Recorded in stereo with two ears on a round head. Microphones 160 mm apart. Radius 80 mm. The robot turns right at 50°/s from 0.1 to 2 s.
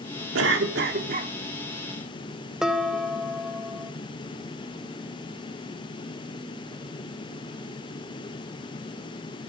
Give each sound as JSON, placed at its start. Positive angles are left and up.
{"t": 0.3, "sound": "a cough", "azimuth_deg": -90, "distance_m": 2.0}
{"t": 2.6, "sound": "dishes clattering", "side_deg": -5, "distance_m": 0.8}